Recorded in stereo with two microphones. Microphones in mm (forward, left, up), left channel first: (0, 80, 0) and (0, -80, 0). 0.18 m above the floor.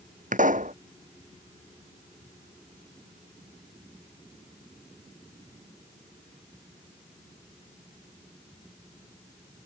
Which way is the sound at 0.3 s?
55° right (ahead or behind).